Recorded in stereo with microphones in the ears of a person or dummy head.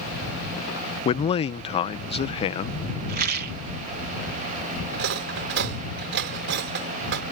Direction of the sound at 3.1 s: 55° right (ahead or behind).